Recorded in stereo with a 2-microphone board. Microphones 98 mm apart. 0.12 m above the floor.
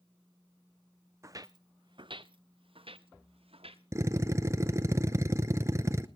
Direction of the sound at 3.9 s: 30° right (ahead or behind).